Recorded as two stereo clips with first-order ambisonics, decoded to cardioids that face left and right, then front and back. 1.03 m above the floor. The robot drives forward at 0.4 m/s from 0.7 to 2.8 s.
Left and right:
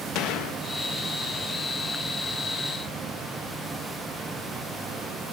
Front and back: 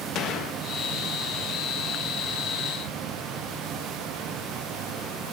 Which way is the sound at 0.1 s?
50° left.